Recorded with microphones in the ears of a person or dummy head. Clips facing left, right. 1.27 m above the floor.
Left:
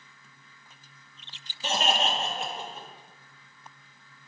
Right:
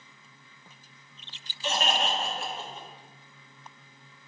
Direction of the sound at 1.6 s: 30° left (ahead or behind).